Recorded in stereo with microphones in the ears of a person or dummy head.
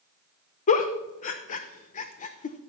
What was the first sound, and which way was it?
A giggle, 35° left (ahead or behind).